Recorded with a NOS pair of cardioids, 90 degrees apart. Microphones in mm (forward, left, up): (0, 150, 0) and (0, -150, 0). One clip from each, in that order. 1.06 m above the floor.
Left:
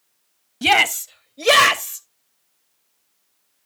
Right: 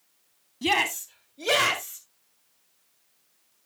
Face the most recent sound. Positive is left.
turn(degrees=80)